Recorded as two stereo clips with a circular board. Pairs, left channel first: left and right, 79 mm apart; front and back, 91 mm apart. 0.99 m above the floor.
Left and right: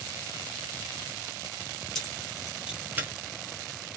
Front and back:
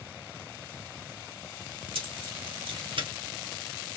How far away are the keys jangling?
About 1.5 m.